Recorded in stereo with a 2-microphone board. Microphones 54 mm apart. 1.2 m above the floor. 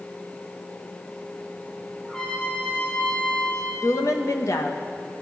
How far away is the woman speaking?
About 1.2 m.